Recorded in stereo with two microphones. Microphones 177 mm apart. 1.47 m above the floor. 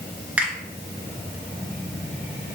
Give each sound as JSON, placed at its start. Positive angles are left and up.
{"t": 0.4, "sound": "a finger snap", "side_deg": -10, "distance_m": 1.0}